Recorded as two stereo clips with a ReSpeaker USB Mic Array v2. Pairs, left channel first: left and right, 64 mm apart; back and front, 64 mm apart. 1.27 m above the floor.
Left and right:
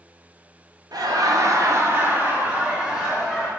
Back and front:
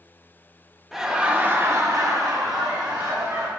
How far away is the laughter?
About 0.6 m.